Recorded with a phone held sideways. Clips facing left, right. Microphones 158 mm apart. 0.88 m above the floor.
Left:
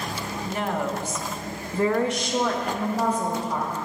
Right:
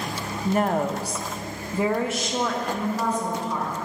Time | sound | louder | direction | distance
0.5 | a woman speaking | right 5 dB | 50° right (ahead or behind) | 0.7 m